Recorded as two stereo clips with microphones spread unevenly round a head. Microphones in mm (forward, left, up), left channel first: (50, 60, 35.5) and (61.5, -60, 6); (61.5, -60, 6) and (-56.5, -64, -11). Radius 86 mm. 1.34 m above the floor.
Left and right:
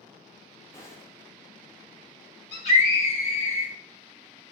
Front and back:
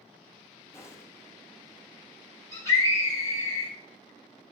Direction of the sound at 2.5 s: 110° left.